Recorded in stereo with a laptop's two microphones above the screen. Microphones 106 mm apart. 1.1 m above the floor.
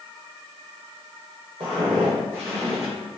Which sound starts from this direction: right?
Footsteps, at 1.6 s.